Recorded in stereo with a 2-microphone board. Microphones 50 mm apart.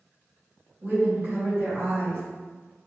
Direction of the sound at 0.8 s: 40° right (ahead or behind).